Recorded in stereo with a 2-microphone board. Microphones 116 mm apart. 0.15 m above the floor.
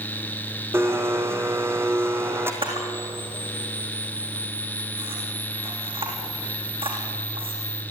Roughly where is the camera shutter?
Right.